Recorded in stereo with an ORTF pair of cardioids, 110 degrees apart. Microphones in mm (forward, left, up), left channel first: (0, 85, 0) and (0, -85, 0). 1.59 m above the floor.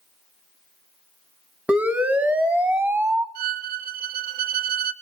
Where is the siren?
5° right, 2.5 m.